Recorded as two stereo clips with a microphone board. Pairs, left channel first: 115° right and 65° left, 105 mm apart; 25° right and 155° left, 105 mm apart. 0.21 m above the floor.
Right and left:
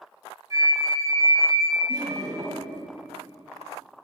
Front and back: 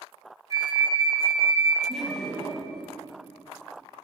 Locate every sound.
0.5 s a flute: 110° left, 1.5 m
1.9 s laughter: 60° left, 1.2 m